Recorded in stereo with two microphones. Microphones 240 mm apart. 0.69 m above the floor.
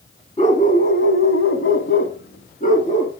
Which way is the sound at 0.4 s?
30° left (ahead or behind).